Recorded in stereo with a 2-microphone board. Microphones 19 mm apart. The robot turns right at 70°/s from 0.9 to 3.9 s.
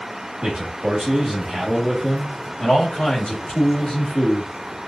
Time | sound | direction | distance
0.4 | a man speaking | 75° right | 1.5 m